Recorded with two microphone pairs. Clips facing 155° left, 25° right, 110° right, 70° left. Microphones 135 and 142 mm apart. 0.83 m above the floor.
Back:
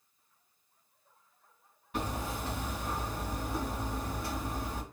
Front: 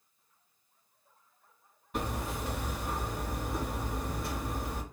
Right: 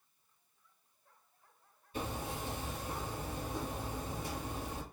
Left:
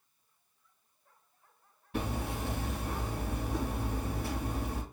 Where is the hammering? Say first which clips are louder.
Even, left 4 dB; 65° left, 2.5 m.